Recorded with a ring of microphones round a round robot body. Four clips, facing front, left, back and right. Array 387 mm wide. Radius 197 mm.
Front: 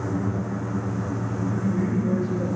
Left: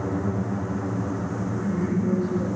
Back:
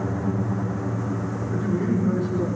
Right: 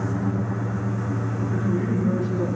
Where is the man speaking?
145° right, 4.5 m.